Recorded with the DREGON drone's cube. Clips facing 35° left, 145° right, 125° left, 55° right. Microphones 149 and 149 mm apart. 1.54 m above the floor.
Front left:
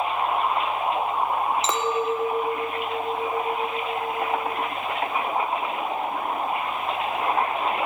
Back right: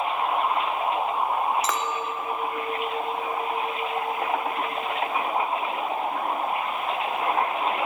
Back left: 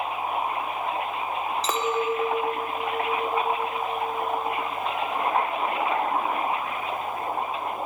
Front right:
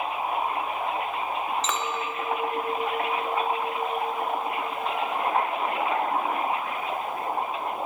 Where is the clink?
90° left, 0.6 m.